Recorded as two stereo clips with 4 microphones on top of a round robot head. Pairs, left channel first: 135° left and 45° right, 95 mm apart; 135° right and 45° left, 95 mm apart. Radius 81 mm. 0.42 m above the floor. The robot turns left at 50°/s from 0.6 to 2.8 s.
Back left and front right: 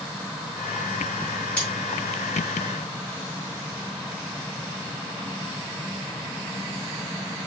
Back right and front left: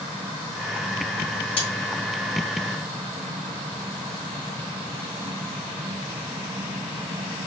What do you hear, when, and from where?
1.6 s cutlery clinking: 150° right, 2 m; by 1.7 s 160° right, 2 m